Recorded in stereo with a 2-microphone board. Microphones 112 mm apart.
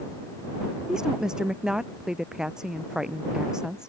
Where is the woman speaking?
5° right (ahead or behind).